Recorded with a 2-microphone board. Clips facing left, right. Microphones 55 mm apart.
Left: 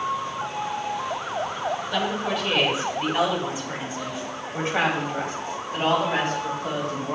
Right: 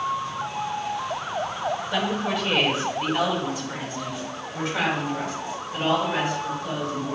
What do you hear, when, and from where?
1.9 s a woman speaking: 10° right (ahead or behind), 1.7 m; by 7.2 s 50° left (ahead or behind), 3.5 m